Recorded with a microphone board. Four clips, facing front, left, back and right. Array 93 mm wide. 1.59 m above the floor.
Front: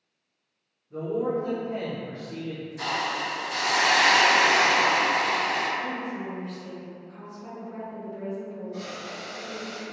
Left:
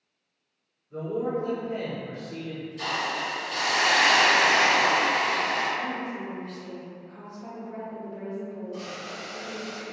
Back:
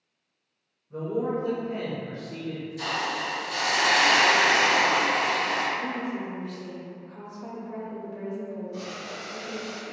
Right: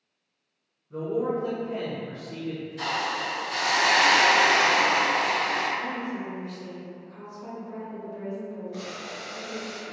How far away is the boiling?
About 0.6 m.